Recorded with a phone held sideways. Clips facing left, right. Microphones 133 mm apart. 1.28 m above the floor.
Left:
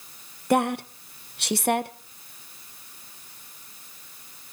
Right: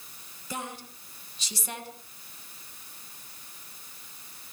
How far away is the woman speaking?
About 1.1 m.